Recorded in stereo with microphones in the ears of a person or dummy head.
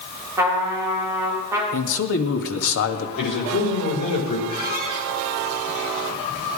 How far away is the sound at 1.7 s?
About 1.8 m.